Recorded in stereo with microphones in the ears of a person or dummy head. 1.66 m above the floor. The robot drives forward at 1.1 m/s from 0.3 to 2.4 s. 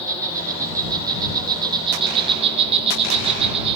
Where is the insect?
20° right (ahead or behind), 5.5 m; by 3.8 s 30° right (ahead or behind), 3.5 m.